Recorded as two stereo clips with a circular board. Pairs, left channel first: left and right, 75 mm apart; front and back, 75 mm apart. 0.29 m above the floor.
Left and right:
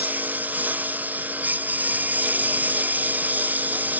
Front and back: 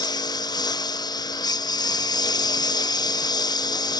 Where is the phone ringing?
No phone ringing in this recording.